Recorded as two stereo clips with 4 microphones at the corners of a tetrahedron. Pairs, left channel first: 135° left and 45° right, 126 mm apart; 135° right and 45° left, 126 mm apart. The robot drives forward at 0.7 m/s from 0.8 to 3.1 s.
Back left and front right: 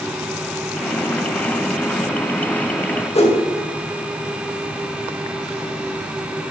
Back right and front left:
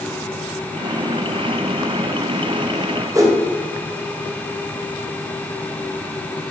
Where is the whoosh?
105° left, 2 m.